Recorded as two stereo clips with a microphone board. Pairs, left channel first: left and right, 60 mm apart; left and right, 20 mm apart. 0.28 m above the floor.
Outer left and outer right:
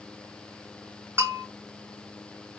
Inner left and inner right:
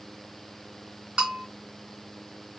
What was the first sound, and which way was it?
A bell, 45° right (ahead or behind).